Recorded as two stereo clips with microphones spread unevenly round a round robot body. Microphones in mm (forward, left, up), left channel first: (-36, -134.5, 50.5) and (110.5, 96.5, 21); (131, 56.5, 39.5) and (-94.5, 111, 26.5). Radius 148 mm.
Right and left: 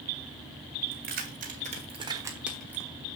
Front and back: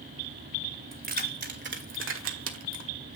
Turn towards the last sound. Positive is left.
turn(degrees=160)